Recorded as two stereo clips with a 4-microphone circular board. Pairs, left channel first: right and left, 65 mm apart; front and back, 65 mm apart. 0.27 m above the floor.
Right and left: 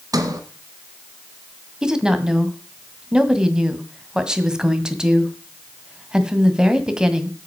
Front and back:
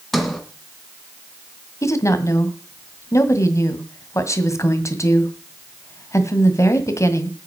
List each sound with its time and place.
0.1 s a sliding door: 85° left, 2 m
1.8 s a woman speaking: 15° left, 1.8 m